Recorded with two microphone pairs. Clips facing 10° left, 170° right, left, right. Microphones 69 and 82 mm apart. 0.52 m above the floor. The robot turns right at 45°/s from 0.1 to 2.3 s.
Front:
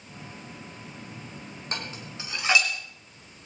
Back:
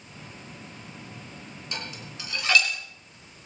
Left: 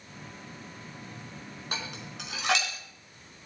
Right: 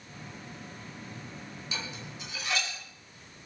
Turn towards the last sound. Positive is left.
turn(degrees=80)